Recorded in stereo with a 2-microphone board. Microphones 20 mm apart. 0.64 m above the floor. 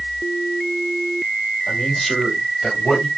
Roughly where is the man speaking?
Centre.